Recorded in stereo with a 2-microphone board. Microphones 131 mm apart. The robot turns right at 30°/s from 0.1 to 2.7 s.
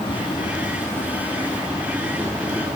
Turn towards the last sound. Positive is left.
turn(degrees=-145)